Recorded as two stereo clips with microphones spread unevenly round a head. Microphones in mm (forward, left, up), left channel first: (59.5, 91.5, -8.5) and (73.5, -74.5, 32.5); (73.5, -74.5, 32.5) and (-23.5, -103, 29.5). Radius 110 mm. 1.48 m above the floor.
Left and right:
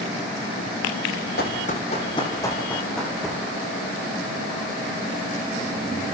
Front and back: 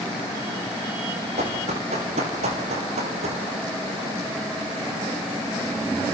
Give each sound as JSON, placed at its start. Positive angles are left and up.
{"t": 1.4, "sound": "running footsteps", "azimuth_deg": 150, "distance_m": 3.5}